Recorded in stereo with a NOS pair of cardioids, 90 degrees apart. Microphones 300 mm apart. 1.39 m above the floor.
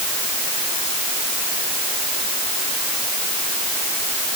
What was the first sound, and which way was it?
Only background noise.